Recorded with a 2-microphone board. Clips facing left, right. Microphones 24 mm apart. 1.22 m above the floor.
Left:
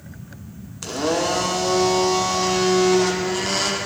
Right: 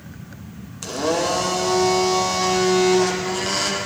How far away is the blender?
About 0.5 m.